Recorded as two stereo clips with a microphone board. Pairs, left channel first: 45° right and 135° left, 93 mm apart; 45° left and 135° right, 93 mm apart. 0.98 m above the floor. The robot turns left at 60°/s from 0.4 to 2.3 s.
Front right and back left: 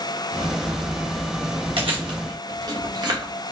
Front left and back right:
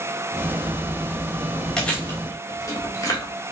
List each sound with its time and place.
1.8 s chewing: 130° left, 1.3 m; by 3.3 s 95° left, 1.3 m